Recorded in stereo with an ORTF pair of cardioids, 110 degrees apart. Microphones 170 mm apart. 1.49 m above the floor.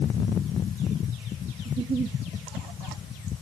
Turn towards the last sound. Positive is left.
turn(degrees=-35)